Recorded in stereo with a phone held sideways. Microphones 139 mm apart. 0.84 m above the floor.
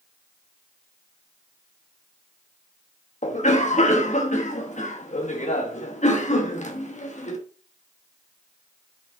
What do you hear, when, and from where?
3.2 s a cough: 60° left (ahead or behind), 1.2 m